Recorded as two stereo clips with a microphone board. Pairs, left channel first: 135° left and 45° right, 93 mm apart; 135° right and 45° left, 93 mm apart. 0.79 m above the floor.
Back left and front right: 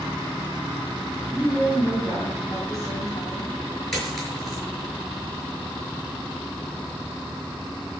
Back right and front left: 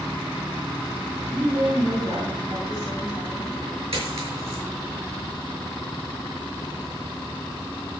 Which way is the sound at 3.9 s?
45° left.